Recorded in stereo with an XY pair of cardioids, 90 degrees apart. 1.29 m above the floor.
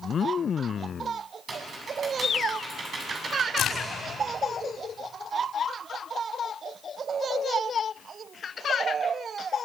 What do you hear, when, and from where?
1.5 s typing on a keyboard: 50° right, 7.5 m
3.6 s a crack: 70° left, 5.5 m